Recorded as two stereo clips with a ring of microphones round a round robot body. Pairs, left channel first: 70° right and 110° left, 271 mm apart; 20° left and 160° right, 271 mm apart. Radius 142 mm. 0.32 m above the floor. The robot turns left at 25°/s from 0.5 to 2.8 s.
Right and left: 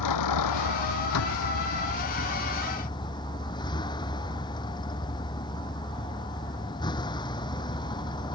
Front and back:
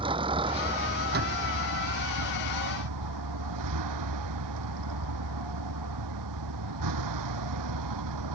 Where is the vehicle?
85° right; by 8.4 s 140° right.